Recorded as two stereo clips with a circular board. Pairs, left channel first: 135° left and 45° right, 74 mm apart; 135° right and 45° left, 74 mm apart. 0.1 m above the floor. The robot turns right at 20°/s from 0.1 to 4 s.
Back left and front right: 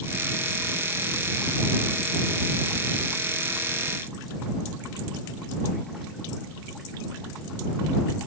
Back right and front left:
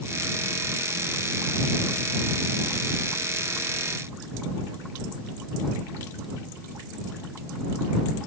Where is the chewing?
No chewing in this recording.